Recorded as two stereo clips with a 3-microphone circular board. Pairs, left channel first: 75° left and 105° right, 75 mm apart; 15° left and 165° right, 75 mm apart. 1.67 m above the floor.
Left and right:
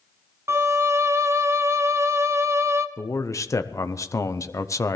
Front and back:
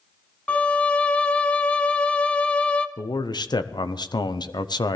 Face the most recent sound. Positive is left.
turn(degrees=30)